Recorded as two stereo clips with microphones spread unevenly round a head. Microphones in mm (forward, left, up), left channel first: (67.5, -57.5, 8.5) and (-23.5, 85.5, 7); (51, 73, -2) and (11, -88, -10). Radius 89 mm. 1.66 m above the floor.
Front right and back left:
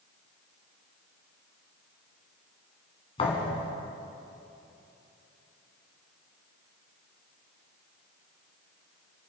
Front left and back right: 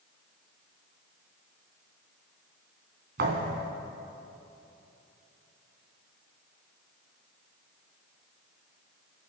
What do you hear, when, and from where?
3.2 s a thud: 115° right, 2.5 m